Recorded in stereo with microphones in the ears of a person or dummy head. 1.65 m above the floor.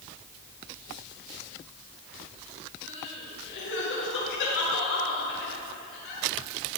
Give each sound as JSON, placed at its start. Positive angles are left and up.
{"t": 2.8, "sound": "crying", "side_deg": 75, "distance_m": 6.0}